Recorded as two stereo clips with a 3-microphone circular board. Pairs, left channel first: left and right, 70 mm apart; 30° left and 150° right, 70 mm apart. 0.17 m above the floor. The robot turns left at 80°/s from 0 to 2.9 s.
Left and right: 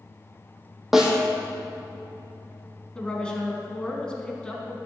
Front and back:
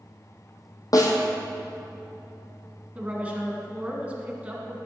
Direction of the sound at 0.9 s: 5° right.